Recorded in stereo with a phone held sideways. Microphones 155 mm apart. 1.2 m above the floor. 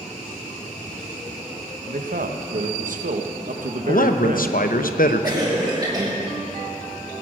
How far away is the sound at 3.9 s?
About 0.8 m.